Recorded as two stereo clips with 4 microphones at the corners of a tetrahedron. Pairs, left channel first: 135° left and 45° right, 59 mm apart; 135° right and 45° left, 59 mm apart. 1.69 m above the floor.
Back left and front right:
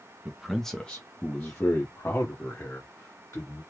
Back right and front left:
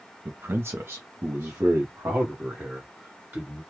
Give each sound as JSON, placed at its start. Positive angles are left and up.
{"t": 0.2, "sound": "a man speaking", "azimuth_deg": 25, "distance_m": 0.6}